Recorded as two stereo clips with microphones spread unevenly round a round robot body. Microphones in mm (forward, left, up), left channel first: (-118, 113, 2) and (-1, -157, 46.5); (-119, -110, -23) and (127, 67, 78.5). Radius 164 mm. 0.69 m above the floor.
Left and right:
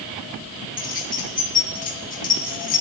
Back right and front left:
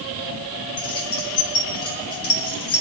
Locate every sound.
0.8 s keys jangling: 175° left, 3 m